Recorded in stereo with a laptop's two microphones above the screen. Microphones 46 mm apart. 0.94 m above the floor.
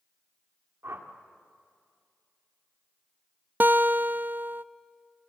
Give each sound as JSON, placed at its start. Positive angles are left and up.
{"t": 0.8, "sound": "a whoosh", "side_deg": -70, "distance_m": 2.0}
{"t": 3.6, "sound": "a guitar", "side_deg": -45, "distance_m": 0.5}